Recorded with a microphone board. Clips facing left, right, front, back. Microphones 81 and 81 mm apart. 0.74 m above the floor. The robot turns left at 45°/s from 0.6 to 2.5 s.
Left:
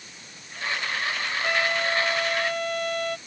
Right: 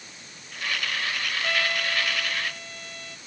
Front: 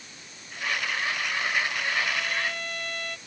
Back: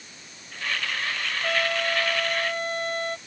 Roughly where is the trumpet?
Behind.